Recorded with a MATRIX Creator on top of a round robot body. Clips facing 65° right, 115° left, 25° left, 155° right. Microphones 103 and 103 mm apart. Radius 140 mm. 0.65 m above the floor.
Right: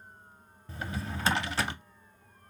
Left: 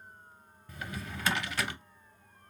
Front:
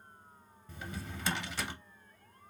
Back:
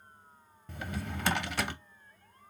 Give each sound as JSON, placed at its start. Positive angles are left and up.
{"t": 0.7, "sound": "a drawer", "azimuth_deg": -130, "distance_m": 0.5}